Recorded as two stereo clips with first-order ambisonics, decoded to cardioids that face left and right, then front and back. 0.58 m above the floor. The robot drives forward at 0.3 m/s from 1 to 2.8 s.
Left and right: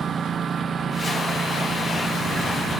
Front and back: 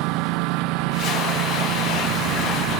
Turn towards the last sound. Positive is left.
turn(degrees=-165)